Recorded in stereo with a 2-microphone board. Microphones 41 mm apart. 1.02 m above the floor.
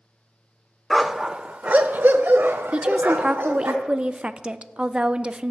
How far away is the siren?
No siren in this recording.